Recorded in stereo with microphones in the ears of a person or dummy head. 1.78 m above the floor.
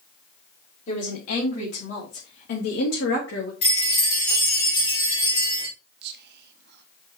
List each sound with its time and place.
0.9 s a woman speaking: 35° left (ahead or behind), 3.5 m; by 3.5 s 60° left (ahead or behind), 2.5 m
3.6 s a chime: 30° left (ahead or behind), 3.5 m
6.0 s whispering: 60° right (ahead or behind), 0.8 m